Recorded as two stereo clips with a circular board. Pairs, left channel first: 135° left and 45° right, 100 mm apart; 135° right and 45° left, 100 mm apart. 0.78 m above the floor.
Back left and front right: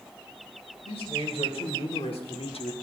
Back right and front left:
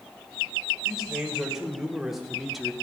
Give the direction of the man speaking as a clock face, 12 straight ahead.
8 o'clock.